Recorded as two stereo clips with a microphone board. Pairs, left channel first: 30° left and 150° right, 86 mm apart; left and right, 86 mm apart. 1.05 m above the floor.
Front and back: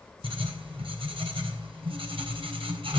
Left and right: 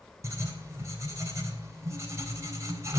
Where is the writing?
145° right, 3.5 m.